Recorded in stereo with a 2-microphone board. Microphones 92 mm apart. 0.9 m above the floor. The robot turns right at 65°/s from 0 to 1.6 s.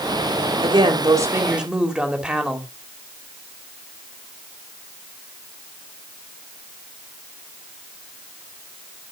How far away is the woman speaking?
About 2 m.